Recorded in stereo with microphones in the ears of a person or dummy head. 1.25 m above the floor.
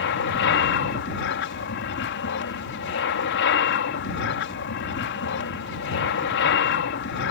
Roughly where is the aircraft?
Left.